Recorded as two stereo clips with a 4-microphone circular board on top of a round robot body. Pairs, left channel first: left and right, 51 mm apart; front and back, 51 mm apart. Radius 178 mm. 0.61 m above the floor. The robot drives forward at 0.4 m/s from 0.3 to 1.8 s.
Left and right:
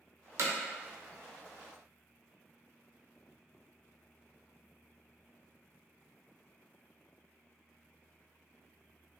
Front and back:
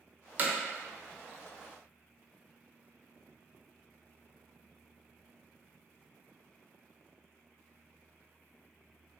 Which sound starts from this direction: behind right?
Hammering, at 0.4 s.